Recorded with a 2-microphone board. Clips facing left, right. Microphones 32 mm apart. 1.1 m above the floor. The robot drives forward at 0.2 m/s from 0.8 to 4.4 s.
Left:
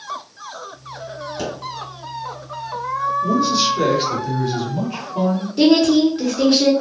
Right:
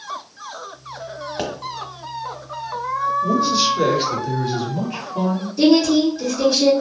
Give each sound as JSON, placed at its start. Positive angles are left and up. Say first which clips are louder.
{"t": 1.4, "sound": "a pop", "louder": "right 1 dB", "side_deg": -45, "distance_m": 1.1}
{"t": 3.2, "sound": "a man speaking", "louder": "left 1 dB", "side_deg": 0, "distance_m": 0.8}
{"t": 5.6, "sound": "a woman speaking", "louder": "left 1 dB", "side_deg": 65, "distance_m": 1.6}